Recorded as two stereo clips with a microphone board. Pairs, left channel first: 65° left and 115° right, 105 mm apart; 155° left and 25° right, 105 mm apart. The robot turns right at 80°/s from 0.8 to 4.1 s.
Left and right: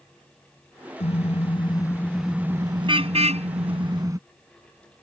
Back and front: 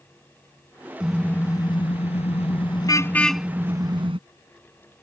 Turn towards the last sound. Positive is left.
turn(degrees=-55)